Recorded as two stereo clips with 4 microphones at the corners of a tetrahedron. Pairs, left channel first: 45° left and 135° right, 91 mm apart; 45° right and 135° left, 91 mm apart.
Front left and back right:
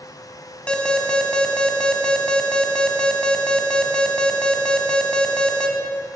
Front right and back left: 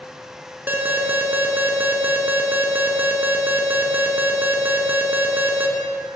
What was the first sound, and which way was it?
An alarm, 110° left.